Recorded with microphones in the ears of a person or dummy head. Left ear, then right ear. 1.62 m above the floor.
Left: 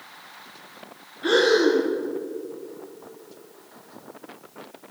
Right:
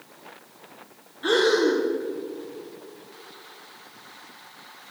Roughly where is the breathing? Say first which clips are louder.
Left 2 dB; right.